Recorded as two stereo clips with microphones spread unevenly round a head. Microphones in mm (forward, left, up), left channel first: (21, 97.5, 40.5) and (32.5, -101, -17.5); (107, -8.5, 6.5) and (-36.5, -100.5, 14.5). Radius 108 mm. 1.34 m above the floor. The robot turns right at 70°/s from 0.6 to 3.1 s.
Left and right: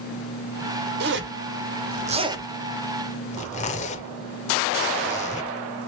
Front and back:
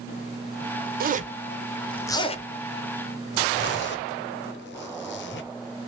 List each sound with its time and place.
1.0 s a zipper: 115° right, 0.8 m; by 5.9 s 30° left, 0.8 m